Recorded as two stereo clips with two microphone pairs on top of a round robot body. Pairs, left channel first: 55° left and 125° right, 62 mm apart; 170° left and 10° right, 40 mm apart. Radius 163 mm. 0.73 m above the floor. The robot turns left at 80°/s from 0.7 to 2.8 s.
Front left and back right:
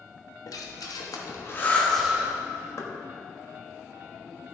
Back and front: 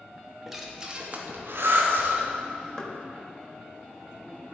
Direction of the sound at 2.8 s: 95° left.